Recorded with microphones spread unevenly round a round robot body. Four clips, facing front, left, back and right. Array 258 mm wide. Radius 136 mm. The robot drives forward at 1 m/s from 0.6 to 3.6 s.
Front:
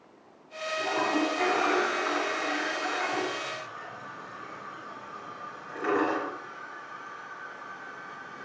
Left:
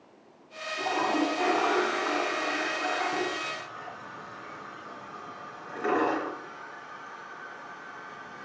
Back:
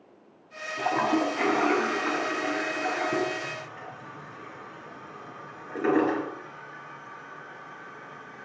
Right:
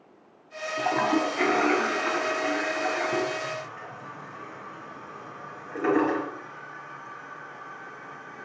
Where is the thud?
I don't hear a thud.